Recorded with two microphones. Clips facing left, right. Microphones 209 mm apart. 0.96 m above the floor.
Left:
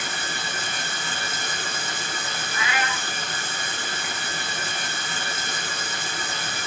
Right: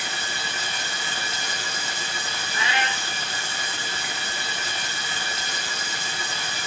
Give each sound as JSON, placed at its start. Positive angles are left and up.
{"t": 0.0, "sound": "running water", "side_deg": 50, "distance_m": 3.5}
{"t": 2.5, "sound": "a cat meowing", "side_deg": -30, "distance_m": 1.3}